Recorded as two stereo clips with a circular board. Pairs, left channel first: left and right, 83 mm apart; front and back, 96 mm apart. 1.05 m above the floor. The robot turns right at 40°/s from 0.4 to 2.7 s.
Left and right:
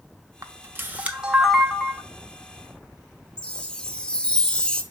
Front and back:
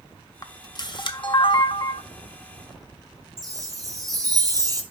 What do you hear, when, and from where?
0.4 s a camera shutter: 45° right, 0.9 m; by 2.0 s 20° left, 0.9 m
3.4 s a chime: 165° left, 1.0 m